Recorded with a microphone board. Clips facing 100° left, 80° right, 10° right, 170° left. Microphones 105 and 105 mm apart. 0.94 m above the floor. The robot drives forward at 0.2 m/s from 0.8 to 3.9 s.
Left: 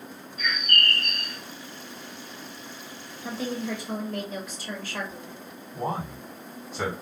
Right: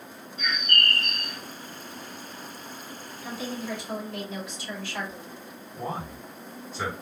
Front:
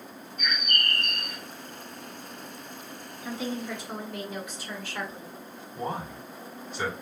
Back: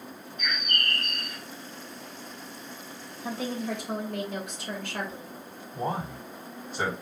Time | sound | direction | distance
0.4 | a bird | 20° right | 1.1 m
3.2 | a woman speaking | 140° left | 1.6 m
5.7 | a man speaking | 125° left | 1.9 m